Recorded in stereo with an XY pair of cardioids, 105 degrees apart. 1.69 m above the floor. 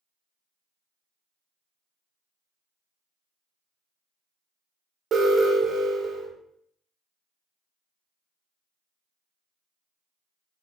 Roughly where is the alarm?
Ahead right.